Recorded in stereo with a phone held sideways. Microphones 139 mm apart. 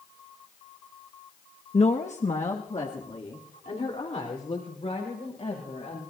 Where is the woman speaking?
50° left (ahead or behind), 0.7 m; by 6.0 s 60° left (ahead or behind), 4 m.